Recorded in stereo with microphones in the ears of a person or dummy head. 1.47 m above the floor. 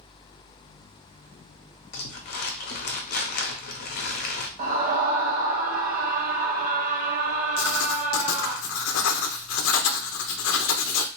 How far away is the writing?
About 0.6 m.